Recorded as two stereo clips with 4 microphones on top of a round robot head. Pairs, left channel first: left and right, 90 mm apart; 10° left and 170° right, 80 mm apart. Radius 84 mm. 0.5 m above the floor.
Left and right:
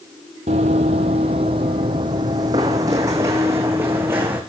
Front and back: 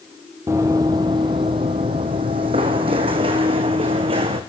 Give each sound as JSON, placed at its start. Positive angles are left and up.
{"t": 0.5, "sound": "running footsteps", "azimuth_deg": -105, "distance_m": 1.1}